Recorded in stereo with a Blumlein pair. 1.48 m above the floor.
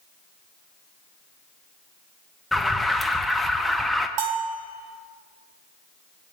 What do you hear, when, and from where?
2.5 s an alarm: straight ahead, 0.9 m
4.2 s a bell: 45° right, 1.3 m